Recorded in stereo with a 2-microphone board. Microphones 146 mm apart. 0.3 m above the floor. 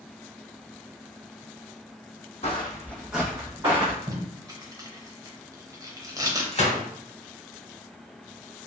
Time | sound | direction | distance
2.4 | footsteps | 50° left (ahead or behind) | 0.8 m
4.1 | tape being pulled | 25° right (ahead or behind) | 0.6 m
6.5 | a gunshot | 45° left (ahead or behind) | 1.0 m